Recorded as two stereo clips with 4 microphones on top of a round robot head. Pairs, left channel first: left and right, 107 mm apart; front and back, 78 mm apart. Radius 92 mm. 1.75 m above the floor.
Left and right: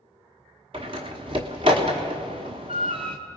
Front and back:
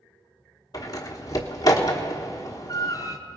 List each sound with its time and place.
0.7 s a door slam: 50° right, 1.0 m